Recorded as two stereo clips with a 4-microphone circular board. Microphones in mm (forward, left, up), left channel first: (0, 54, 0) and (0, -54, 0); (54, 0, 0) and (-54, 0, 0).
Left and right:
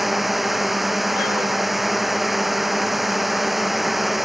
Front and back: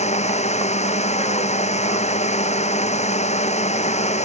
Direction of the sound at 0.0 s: Straight ahead.